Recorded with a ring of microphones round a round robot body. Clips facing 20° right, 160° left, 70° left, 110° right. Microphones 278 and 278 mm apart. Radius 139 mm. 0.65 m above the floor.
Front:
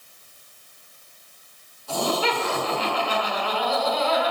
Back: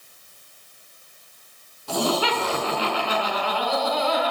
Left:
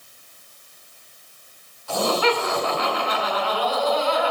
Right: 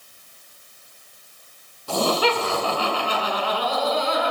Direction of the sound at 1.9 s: 165° right.